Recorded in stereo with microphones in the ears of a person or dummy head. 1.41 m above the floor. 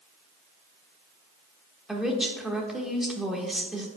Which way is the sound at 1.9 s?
5° right (ahead or behind).